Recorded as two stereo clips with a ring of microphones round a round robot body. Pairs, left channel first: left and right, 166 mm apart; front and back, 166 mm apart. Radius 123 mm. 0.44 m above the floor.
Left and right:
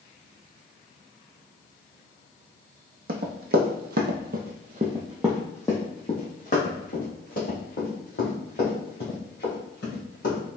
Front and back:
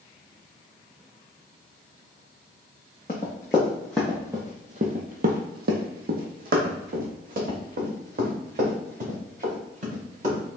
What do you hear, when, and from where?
3.1 s running footsteps: 70° right, 1.1 m; by 10.4 s 140° left, 3.5 m